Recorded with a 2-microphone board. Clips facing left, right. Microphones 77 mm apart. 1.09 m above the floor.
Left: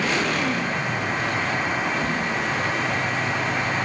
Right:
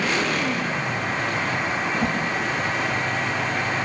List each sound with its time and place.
1.9 s a whoosh: 75° right (ahead or behind), 7 m